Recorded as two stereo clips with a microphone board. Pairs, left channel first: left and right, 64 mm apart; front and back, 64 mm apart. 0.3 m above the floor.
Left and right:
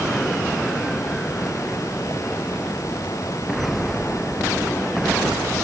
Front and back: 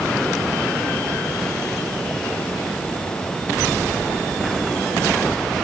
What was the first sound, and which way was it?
Only background noise.